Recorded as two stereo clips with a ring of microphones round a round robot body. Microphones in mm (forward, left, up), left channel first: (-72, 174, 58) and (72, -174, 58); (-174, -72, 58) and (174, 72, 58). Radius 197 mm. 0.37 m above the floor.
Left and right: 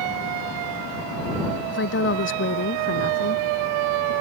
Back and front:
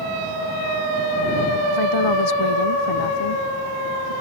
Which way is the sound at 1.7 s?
175° left.